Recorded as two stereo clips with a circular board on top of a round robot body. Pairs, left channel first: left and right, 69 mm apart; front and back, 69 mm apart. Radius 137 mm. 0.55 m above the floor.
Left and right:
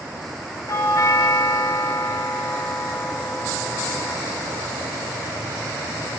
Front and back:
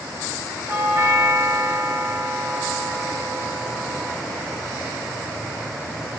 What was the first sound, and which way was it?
A doorbell, 125° left.